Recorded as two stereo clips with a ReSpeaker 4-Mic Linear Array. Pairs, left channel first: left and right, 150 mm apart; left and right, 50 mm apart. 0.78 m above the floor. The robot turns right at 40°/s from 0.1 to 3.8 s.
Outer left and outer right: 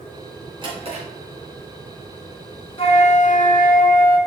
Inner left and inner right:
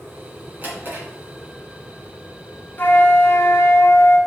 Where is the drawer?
30° right (ahead or behind), 3 m; by 1.1 s 50° right (ahead or behind), 3 m.